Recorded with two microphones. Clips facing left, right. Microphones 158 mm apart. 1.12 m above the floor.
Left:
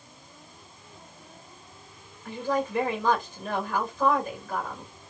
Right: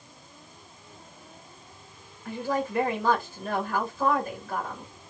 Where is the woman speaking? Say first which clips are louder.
Left 1 dB; 5° right (ahead or behind), 1.7 m.